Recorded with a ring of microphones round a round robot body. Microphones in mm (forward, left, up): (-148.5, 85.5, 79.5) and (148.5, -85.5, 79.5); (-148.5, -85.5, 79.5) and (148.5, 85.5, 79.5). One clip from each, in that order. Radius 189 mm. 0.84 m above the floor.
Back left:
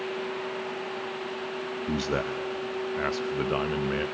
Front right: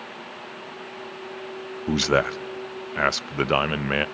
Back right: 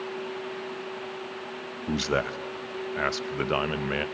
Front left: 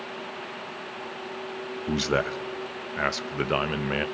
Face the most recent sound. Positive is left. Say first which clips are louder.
# front right 9 dB, front left 1 dB
turn(degrees=-60)